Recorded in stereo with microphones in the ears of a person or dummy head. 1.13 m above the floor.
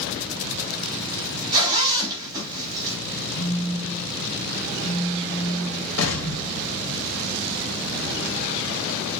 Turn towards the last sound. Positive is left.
turn(degrees=80)